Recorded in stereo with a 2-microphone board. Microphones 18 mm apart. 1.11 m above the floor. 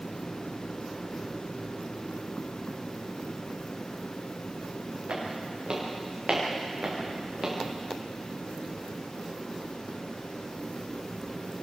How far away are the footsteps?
About 8 m.